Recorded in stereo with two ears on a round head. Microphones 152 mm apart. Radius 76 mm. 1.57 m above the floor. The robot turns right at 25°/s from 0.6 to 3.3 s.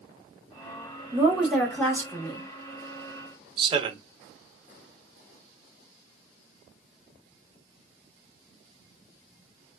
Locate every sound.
1.1 s a woman speaking: 10° right, 1.1 m; by 2.4 s 25° left, 1.1 m
3.6 s a man speaking: 25° right (ahead or behind), 0.5 m